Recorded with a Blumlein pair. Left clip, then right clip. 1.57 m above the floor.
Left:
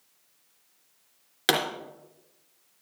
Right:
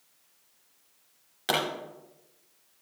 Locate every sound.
1.5 s a pop: 25° left, 3 m